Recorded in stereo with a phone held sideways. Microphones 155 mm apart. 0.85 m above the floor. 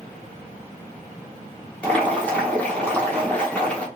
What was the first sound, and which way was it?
Boiling, 10° left (ahead or behind).